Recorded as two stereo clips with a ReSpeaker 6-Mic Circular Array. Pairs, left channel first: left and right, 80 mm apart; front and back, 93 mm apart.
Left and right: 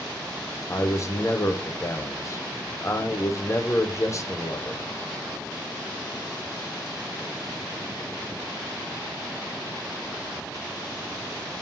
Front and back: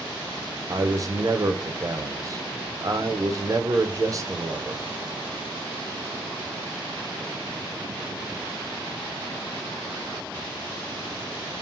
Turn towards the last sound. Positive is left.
turn(degrees=135)